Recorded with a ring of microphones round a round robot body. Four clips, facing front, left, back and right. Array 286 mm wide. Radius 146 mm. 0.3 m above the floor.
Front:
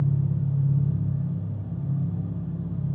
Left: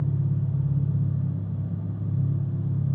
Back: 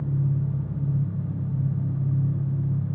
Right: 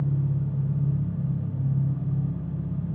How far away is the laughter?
I don't hear laughter.